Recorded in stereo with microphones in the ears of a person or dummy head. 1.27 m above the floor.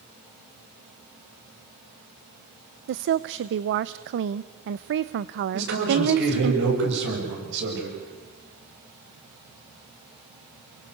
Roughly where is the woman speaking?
Right.